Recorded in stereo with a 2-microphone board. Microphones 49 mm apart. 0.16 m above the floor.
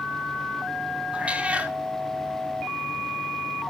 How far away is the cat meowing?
About 1.5 m.